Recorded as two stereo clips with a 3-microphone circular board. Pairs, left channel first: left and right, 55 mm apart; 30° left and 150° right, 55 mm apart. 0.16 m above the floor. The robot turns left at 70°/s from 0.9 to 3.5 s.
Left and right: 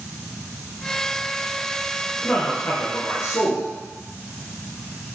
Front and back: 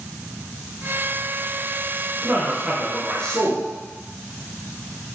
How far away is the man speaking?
About 3 m.